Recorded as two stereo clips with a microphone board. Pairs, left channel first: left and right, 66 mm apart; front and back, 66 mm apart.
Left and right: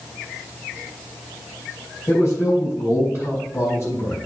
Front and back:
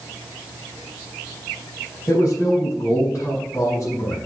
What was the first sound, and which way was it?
A man speaking, 45° left.